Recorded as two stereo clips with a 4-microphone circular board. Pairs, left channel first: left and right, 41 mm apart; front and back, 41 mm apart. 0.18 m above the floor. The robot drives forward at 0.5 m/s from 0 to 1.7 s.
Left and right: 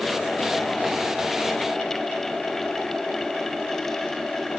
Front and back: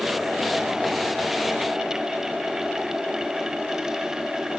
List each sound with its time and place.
Only background noise.